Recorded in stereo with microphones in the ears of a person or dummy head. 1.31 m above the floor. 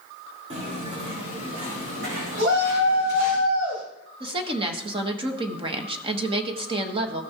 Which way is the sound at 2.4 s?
85° right.